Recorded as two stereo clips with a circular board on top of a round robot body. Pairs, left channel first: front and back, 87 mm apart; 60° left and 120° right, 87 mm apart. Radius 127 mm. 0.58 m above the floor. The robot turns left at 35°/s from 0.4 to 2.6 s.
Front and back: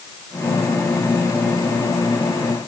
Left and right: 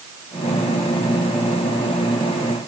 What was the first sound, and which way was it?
Only background noise.